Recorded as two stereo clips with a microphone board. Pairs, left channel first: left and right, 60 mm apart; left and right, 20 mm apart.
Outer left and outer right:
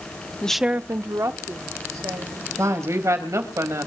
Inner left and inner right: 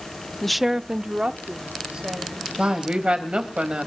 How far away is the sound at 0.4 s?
About 0.5 m.